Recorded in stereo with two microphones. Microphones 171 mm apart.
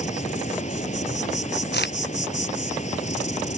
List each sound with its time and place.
0.0 s an insect: 45° left (ahead or behind)
1.7 s a crack: 75° left (ahead or behind)